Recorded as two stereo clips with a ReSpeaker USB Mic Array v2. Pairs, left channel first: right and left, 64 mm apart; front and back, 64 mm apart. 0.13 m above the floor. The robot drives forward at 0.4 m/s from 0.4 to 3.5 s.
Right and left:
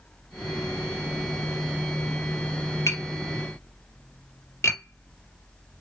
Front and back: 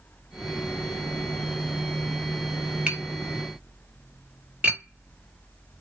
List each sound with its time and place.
2.9 s tapping: 110° right, 2 m; by 5.8 s 115° right, 2 m